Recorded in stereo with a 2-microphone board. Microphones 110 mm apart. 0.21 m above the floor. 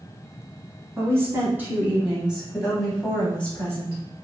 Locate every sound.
0.9 s a woman speaking: 25° right (ahead or behind), 1.7 m; by 4.0 s 25° left (ahead or behind), 1.2 m